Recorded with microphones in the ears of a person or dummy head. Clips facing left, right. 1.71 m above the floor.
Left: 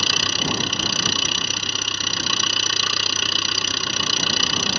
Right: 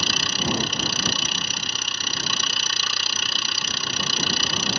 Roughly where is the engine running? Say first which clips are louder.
Left 1 dB; left.